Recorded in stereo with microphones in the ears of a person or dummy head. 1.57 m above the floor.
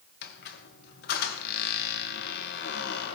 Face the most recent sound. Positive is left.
turn(degrees=65)  # may be behind; listen again after turning